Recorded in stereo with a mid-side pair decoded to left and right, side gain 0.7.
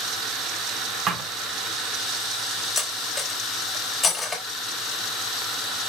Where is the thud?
35° right, 3 m.